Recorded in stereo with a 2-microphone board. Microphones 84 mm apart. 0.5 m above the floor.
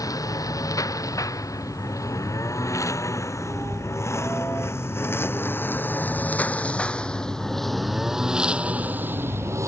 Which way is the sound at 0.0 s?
45° left (ahead or behind).